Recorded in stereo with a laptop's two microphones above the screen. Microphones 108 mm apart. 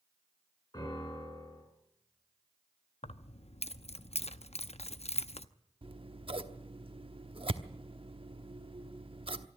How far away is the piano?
About 9 m.